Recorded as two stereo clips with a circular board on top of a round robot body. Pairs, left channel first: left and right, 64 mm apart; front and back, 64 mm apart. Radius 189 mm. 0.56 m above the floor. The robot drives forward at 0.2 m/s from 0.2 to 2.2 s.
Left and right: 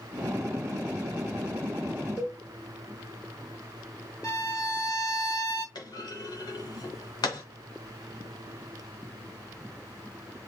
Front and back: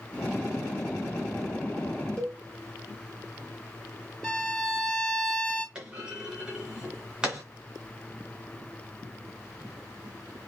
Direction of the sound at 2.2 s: 75° left.